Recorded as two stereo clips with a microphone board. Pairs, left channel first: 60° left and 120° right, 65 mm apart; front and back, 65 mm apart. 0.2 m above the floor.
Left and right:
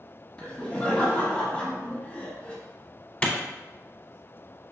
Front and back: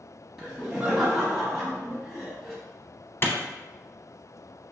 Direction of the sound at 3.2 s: 5° left.